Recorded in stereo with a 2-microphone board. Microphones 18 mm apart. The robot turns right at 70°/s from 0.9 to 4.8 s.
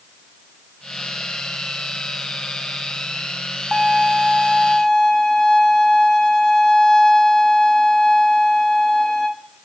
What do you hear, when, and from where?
3.7 s a violin: 10° left, 0.5 m; by 9.3 s 85° left, 0.5 m